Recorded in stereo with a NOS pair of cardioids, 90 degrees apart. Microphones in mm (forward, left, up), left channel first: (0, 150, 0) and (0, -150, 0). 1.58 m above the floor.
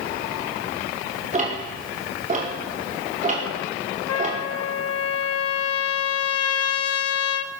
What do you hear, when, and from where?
1.3 s ticking: 25° right, 5 m
4.1 s a trumpet: 55° left, 1.2 m